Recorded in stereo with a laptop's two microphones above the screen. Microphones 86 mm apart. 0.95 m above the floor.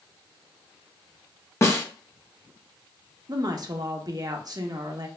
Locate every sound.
1.6 s a snare drum: 35° left (ahead or behind), 0.5 m
3.3 s a woman speaking: 50° right (ahead or behind), 0.7 m